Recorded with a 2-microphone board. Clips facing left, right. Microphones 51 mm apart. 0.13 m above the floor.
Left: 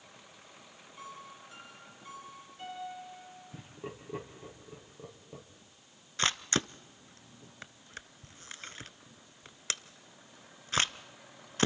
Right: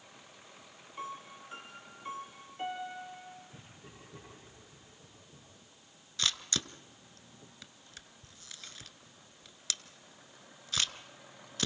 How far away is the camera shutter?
About 0.7 m.